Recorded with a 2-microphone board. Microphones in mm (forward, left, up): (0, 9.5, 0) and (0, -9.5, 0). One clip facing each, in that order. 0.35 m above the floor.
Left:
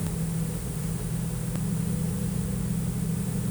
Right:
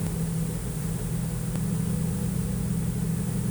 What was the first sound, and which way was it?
Only background noise.